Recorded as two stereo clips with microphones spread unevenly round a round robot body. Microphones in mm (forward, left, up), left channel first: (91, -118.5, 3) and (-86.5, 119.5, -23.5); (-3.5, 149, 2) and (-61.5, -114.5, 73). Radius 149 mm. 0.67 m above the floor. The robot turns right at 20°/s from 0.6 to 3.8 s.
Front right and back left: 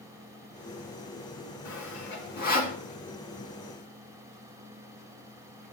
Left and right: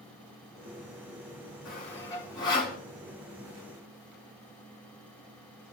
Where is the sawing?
10° right, 1.9 m; by 2.8 s 15° left, 1.9 m.